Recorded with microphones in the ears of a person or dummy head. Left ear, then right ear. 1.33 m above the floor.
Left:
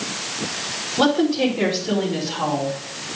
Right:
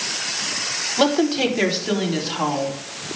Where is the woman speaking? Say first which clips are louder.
Left 1 dB; 60° right (ahead or behind), 3.5 m; by 2.8 s 35° right (ahead or behind), 3.5 m.